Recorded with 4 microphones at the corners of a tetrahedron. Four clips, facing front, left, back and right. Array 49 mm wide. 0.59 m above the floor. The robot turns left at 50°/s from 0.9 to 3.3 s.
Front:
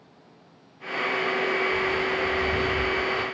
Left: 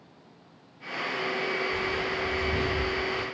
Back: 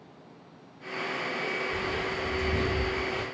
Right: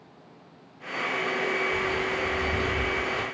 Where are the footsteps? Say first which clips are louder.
Right 2 dB, front 6 dB; 150° left, 1.2 m; by 3.2 s 115° right, 0.7 m.